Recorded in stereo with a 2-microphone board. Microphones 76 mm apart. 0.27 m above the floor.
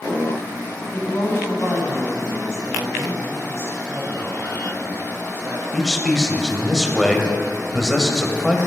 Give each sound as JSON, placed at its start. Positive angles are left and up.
{"t": 0.9, "sound": "a woman speaking", "side_deg": 40, "distance_m": 2.5}
{"t": 3.9, "sound": "a man speaking", "side_deg": -35, "distance_m": 2.5}
{"t": 5.7, "sound": "a man speaking", "side_deg": 5, "distance_m": 0.9}